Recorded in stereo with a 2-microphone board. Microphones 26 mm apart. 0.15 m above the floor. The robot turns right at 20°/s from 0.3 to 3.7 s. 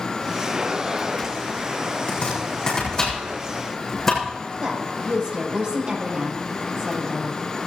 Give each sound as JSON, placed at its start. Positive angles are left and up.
{"t": 2.1, "sound": "chopping", "side_deg": 45, "distance_m": 6.0}
{"t": 4.6, "sound": "a woman speaking", "side_deg": -40, "distance_m": 6.0}